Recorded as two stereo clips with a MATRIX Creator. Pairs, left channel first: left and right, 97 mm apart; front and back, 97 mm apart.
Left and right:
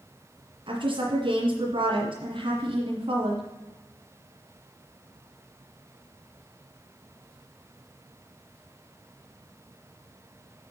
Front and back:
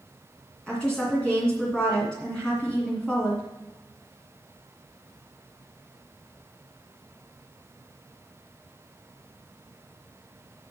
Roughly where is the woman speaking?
Right.